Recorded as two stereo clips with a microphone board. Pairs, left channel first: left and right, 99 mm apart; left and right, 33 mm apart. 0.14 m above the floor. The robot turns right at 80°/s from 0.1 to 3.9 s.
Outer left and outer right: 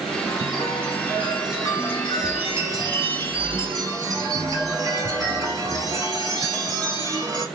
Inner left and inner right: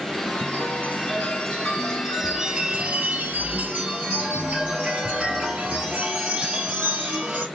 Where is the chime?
30° left, 2.5 m; by 7.5 s 40° right, 2.5 m.